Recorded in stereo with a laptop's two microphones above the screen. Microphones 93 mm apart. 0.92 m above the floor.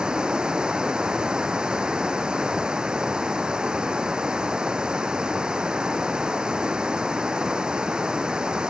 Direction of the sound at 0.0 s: 10° right (ahead or behind).